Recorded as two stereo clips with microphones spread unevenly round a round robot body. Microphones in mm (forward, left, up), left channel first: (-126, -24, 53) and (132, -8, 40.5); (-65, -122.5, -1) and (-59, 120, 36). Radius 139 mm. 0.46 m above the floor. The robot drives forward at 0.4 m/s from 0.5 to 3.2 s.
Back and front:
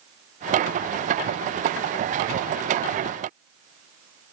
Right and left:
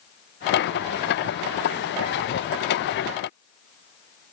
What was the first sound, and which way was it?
Only background noise.